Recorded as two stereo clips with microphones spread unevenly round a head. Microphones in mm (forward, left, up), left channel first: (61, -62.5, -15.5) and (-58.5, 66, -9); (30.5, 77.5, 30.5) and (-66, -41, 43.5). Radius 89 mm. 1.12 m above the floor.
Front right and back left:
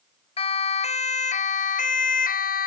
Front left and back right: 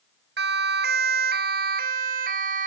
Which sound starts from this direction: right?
A siren, at 0.4 s.